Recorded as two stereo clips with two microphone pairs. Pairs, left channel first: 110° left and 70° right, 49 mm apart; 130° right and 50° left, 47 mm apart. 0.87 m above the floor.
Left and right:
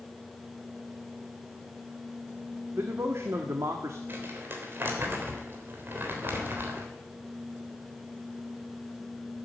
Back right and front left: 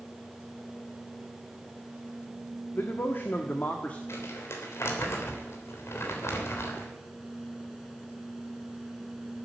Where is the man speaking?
105° right, 1.5 m; by 4.0 s 75° right, 1.3 m.